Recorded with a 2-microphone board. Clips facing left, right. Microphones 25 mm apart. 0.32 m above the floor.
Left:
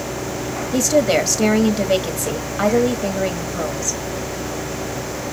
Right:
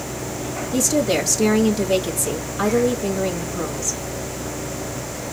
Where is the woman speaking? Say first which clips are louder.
Left 3 dB; 30° left (ahead or behind), 1.2 m.